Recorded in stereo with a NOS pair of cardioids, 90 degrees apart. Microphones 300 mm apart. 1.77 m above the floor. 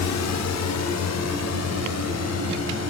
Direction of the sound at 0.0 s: 60° left.